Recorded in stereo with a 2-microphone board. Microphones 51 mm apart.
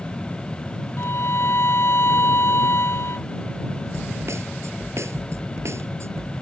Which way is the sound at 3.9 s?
65° right (ahead or behind).